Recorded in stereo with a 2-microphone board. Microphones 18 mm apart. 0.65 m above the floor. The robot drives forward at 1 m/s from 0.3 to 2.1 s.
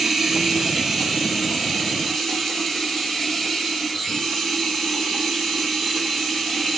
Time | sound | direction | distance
0.0 | running water | 15° right (ahead or behind) | 1.5 m